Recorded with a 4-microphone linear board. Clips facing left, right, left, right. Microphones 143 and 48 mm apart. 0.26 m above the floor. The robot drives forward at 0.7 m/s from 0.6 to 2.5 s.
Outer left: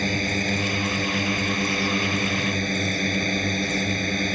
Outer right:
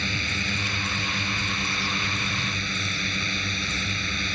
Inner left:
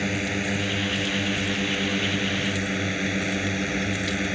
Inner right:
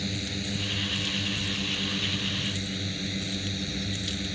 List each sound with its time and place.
0.0 s a drone: 45° left (ahead or behind)